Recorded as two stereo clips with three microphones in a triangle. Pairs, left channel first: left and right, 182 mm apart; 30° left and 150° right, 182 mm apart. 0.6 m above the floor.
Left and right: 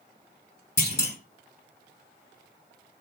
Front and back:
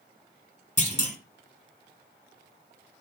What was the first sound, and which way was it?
A clunk, 75° left.